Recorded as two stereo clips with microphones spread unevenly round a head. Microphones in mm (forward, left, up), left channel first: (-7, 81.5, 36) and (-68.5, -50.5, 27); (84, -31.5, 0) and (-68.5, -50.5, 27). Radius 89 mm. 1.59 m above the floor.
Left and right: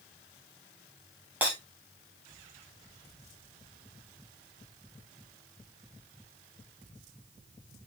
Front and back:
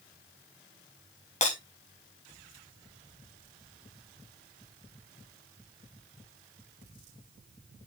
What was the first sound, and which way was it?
Breaking glass, 35° right.